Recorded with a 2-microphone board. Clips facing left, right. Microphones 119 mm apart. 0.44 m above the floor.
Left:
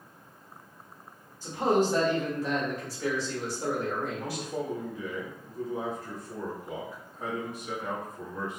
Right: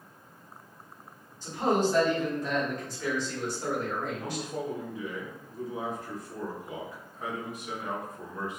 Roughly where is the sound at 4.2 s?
Left.